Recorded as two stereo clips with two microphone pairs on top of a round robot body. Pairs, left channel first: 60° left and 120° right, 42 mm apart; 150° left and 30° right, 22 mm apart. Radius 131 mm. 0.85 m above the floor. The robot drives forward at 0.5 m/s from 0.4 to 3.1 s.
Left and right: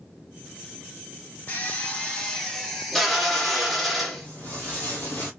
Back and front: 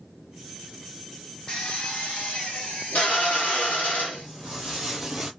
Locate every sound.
1.5 s a drill: 100° left, 0.6 m; by 4.3 s 150° left, 1.1 m
4.1 s footsteps: 110° left, 1.5 m; by 5.3 s 50° left, 1.0 m